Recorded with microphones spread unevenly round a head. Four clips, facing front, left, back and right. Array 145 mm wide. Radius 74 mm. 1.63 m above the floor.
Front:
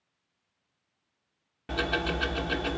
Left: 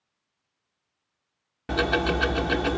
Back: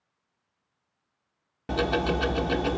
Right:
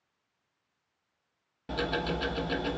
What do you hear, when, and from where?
1.7 s ticking: 135° left, 1.0 m